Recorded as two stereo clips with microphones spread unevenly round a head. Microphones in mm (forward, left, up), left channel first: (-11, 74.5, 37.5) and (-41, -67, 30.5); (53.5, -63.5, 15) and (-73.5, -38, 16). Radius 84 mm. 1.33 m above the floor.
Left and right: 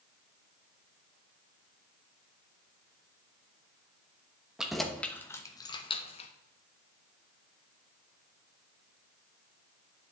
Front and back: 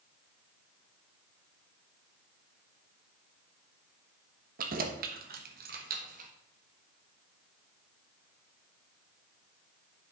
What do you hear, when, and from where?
4.6 s keys jangling: 170° left, 1.1 m; by 6.3 s 120° left, 1.1 m